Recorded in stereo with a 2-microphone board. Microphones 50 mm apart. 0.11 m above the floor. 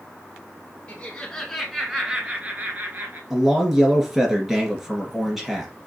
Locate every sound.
0.9 s laughter: 25° left (ahead or behind), 1.2 m; by 3.2 s 45° right (ahead or behind), 1.6 m
3.3 s a man speaking: 5° right (ahead or behind), 2.0 m